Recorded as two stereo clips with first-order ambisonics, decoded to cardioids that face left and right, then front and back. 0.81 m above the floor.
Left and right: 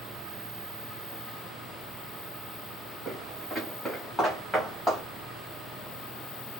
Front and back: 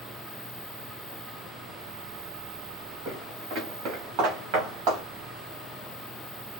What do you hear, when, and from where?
3.0 s footsteps: straight behind, 2.5 m; by 5.0 s 175° right, 3.5 m